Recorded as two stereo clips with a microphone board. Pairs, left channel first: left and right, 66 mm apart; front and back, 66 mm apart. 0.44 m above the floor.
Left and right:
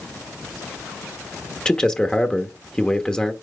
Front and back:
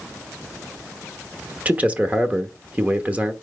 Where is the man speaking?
150° left, 0.9 m.